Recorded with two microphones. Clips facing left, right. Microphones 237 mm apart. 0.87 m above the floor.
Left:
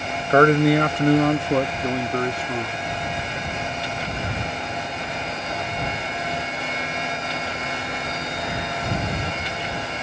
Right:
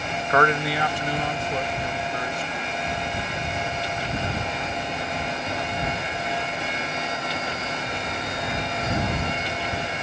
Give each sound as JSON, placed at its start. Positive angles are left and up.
{"t": 0.3, "sound": "a man speaking", "side_deg": 30}